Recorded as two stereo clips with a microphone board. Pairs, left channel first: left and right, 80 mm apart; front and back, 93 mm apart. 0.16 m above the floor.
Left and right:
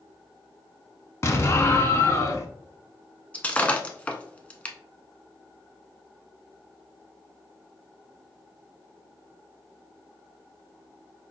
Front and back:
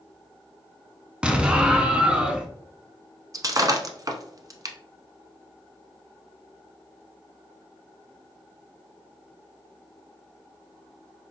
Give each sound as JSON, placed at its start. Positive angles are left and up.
{"t": 1.2, "sound": "an explosion", "azimuth_deg": 110, "distance_m": 0.5}
{"t": 3.3, "sound": "breaking glass", "azimuth_deg": 155, "distance_m": 0.5}